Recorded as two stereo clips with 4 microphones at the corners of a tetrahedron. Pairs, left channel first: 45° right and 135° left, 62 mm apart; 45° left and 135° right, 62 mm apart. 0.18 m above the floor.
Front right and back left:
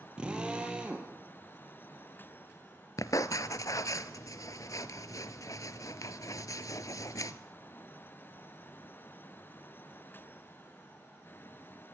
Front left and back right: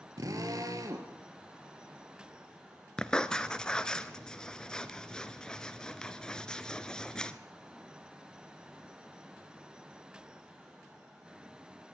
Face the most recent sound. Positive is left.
turn(degrees=-35)